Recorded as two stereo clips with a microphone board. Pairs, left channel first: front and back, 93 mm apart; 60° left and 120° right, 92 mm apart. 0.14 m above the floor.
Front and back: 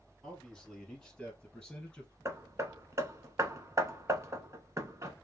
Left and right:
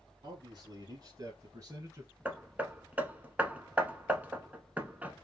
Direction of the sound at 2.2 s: Straight behind.